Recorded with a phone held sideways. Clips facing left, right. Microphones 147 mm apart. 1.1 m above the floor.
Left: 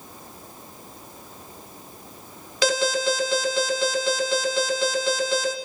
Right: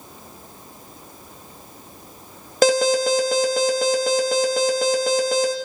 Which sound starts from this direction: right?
An alarm, at 2.6 s.